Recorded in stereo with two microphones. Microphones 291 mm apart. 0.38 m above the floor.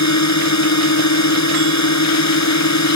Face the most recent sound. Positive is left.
turn(degrees=70)  # may be behind; listen again after turning